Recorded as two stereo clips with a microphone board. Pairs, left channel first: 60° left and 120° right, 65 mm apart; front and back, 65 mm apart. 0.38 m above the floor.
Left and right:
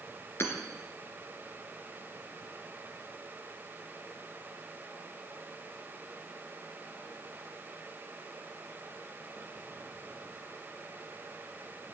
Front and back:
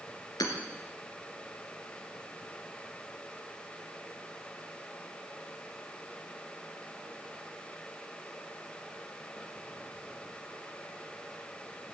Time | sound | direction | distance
0.4 | hammering | 10° left | 2.5 m